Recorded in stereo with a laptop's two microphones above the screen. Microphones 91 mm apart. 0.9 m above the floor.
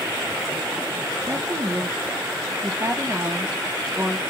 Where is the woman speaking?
30° right (ahead or behind), 0.9 m.